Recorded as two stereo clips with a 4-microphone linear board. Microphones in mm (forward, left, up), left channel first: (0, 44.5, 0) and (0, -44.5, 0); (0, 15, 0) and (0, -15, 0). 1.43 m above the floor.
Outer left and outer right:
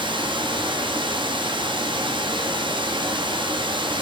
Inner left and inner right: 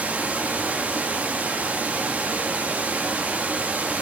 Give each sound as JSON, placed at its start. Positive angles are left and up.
{"t": 0.0, "sound": "running water", "side_deg": -70, "distance_m": 1.6}